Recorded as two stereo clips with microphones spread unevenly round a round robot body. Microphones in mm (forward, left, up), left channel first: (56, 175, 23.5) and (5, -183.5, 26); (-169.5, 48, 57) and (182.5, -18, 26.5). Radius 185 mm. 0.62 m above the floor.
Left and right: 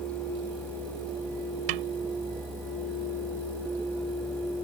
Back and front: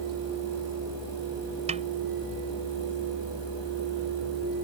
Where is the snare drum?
85° right.